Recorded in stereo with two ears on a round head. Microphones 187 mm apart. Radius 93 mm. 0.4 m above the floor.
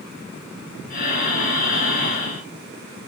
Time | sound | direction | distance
0.9 | breathing | 45° left (ahead or behind) | 1.5 m